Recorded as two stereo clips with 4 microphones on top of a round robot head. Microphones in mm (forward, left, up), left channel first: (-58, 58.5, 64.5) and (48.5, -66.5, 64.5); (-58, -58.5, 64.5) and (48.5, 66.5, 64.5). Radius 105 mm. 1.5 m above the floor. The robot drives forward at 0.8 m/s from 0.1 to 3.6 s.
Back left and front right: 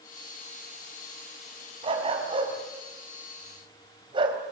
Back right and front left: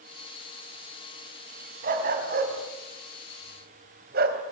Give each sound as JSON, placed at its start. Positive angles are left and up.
{"t": 1.8, "sound": "a dog barking", "azimuth_deg": 10, "distance_m": 5.0}